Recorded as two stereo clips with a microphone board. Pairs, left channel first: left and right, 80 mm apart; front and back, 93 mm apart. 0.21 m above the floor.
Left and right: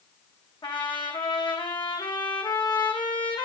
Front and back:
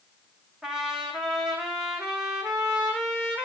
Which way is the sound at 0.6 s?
100° left.